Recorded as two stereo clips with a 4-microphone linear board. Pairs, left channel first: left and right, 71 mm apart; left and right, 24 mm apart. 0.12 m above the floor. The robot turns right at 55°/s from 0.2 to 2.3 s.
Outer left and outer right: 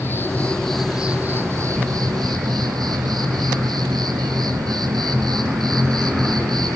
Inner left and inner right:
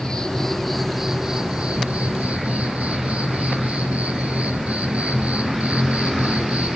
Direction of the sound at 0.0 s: 150° left.